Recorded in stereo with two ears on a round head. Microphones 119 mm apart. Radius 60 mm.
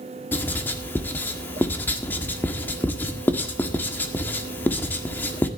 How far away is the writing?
About 1.7 m.